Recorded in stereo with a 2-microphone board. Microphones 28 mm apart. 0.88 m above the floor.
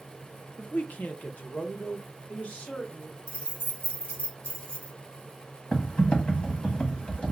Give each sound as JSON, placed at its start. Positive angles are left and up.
{"t": 0.6, "sound": "a man speaking", "side_deg": 65, "distance_m": 0.6}
{"t": 3.3, "sound": "keys jangling", "side_deg": 50, "distance_m": 2.0}
{"t": 5.7, "sound": "typing on a keyboard", "side_deg": 40, "distance_m": 1.2}